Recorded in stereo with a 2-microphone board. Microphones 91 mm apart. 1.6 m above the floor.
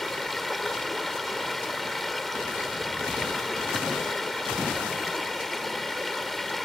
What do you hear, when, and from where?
0.0 s running water: centre (ahead or behind)